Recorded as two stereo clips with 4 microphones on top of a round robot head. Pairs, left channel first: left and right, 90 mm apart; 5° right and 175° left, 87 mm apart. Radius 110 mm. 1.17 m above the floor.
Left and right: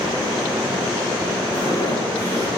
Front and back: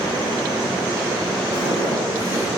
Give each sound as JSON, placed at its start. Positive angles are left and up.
{"t": 1.5, "sound": "footsteps", "azimuth_deg": 35, "distance_m": 6.0}